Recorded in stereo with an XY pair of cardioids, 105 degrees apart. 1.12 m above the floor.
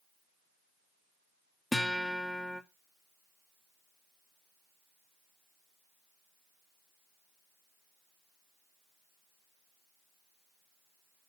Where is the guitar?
5° left, 1.9 m.